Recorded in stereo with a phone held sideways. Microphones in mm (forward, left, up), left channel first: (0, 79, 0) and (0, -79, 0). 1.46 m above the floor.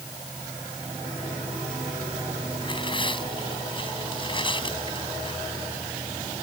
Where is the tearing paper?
35° left (ahead or behind).